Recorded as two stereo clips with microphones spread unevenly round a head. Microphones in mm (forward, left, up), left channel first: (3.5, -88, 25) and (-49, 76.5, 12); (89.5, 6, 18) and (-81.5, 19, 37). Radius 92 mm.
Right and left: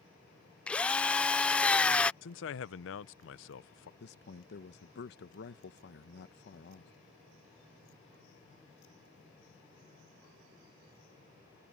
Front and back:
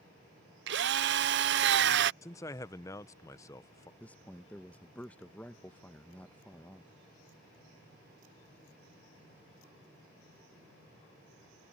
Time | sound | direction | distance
0.7 | a drill | 155° right | ?
2.2 | a man speaking | 80° right | ?
4.0 | a man speaking | 90° right | ?